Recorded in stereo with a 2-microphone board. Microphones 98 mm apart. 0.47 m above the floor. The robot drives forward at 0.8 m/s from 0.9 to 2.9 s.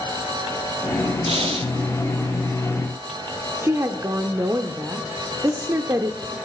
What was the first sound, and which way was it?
Breathing, 80° right.